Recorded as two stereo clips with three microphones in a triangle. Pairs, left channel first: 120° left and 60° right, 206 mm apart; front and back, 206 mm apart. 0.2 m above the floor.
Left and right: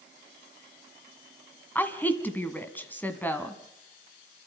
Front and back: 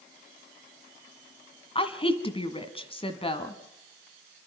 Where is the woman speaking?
45° left, 1.7 m.